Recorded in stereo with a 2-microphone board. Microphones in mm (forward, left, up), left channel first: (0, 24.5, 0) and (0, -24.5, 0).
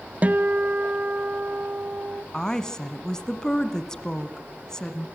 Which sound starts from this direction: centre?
A woman speaking, at 2.3 s.